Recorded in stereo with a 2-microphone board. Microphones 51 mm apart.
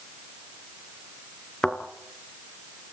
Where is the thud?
15° left (ahead or behind), 2 m.